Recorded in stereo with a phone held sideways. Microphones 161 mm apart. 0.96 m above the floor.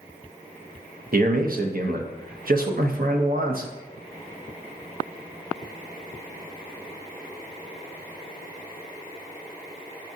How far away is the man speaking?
About 0.7 m.